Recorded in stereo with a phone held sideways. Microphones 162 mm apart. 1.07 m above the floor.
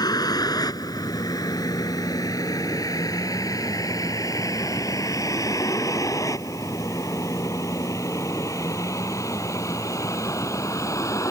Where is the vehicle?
25° left (ahead or behind); by 11.3 s 20° left (ahead or behind).